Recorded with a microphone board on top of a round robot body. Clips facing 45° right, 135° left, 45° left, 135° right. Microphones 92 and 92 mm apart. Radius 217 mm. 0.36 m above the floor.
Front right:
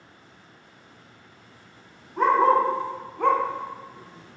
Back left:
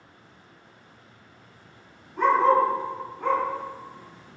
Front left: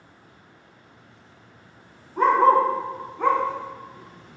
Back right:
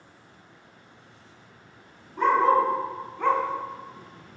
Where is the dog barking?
Straight ahead, 1.0 m; by 4.4 s 85° right, 0.7 m.